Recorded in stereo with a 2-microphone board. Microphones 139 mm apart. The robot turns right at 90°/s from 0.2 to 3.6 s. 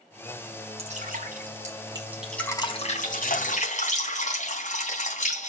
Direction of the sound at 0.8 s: 135° right.